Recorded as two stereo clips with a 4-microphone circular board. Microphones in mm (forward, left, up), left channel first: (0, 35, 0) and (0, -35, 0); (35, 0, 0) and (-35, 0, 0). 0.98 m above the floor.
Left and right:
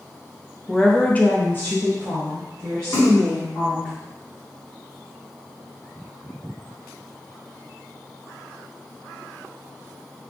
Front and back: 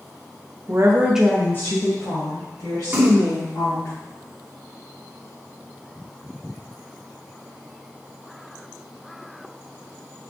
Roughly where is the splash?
Behind left.